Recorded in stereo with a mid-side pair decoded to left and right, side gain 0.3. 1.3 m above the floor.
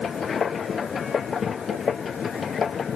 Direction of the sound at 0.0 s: 60° left.